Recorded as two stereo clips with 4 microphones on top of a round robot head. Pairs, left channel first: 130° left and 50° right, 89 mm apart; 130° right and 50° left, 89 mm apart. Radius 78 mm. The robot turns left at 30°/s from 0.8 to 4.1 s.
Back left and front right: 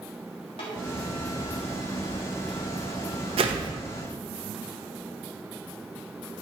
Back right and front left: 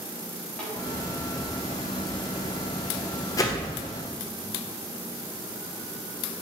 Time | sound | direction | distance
0.6 | a snare drum | 155° left | 1.3 m
3.4 | a whoosh | 75° right | 0.8 m